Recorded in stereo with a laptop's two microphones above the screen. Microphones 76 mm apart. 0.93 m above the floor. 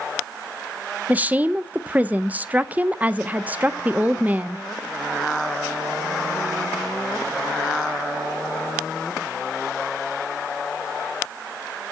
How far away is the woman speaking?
About 0.6 m.